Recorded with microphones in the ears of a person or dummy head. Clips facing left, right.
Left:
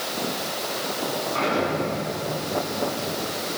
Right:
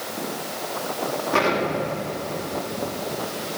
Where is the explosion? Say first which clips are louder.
Right 2 dB; 80° right, 6 m.